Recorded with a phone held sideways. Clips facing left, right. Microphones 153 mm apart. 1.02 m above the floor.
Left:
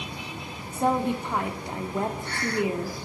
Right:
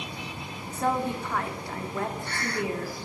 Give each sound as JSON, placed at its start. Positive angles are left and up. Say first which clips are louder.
{"t": 0.7, "sound": "a woman speaking", "louder": "left 3 dB", "side_deg": 20, "distance_m": 2.0}